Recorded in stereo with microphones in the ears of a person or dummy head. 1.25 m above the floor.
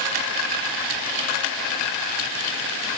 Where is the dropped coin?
I don't hear a dropped coin.